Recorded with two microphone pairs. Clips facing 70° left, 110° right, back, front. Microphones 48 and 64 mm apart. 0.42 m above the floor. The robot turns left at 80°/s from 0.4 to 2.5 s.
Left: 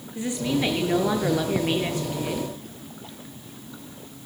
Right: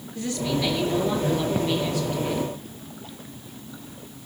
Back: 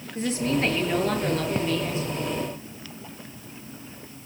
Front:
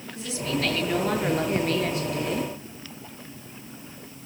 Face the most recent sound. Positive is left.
turn(degrees=-30)